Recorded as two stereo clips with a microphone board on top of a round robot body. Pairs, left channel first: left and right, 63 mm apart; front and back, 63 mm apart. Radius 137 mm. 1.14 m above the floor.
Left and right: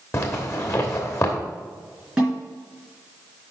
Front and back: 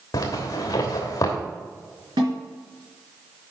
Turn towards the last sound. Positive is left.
turn(degrees=-170)